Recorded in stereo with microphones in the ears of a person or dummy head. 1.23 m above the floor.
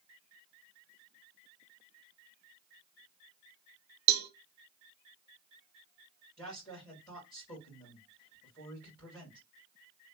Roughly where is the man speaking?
Centre.